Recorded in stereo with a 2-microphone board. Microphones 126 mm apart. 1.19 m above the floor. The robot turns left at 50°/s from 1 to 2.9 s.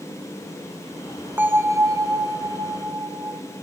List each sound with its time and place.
1.4 s a bell: 25° right, 0.6 m; by 3.4 s 105° right, 0.6 m